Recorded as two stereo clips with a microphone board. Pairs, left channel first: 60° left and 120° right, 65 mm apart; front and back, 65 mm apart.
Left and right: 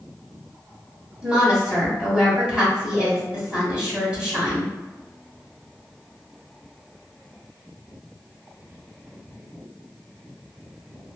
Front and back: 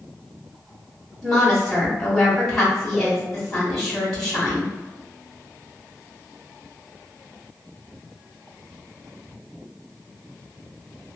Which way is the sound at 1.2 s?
90° right.